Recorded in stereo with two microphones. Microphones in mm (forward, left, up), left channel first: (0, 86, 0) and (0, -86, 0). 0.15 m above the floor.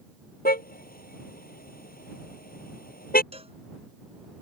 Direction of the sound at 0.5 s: 65° left (ahead or behind).